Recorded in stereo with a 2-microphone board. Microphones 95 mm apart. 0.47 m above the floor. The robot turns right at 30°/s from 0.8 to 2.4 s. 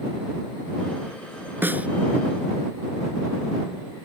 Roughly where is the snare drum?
Right.